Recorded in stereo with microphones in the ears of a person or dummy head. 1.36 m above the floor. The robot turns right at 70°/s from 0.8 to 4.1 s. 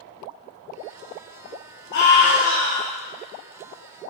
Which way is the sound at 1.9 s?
115° left.